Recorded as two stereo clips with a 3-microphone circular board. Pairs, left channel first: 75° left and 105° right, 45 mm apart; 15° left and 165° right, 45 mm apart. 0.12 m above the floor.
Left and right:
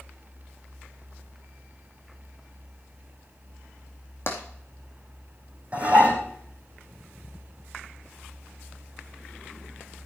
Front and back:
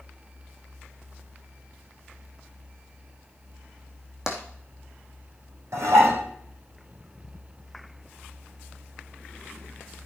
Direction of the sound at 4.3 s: 115° left.